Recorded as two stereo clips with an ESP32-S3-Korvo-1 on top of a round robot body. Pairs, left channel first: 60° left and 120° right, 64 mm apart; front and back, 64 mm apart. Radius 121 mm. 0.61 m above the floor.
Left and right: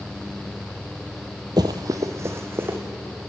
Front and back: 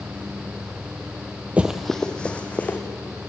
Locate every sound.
1.6 s running footsteps: 115° right, 0.8 m; by 2.8 s 65° right, 2.5 m